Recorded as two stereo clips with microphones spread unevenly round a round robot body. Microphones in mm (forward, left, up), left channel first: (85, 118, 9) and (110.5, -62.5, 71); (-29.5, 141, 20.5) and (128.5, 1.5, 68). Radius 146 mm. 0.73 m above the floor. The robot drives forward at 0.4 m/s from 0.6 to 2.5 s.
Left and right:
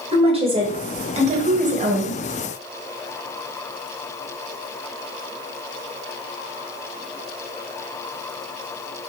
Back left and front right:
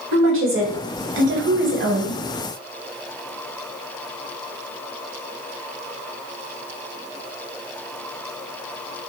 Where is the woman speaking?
15° right, 1.1 m; by 2.2 s 40° right, 0.7 m.